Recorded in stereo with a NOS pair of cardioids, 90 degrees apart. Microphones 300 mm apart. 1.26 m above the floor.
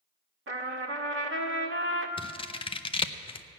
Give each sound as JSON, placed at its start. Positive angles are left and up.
{"t": 0.5, "sound": "a trumpet", "azimuth_deg": -45, "distance_m": 1.6}
{"t": 2.2, "sound": "scissors", "azimuth_deg": 20, "distance_m": 0.6}